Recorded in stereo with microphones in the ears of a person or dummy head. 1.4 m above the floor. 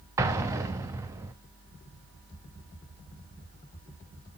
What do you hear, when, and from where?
0.2 s an explosion: 15° right (ahead or behind), 1.1 m